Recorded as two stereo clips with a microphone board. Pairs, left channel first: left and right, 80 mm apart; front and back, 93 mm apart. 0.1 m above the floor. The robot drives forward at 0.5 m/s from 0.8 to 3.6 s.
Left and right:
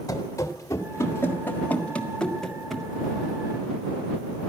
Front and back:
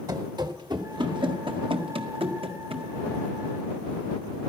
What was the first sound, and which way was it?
Running footsteps, 135° left.